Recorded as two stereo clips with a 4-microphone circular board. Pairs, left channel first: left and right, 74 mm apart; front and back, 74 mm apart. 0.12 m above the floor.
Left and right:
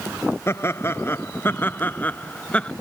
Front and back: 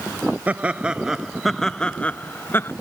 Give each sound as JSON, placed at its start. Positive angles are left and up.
{"t": 0.5, "sound": "laughter", "azimuth_deg": 120}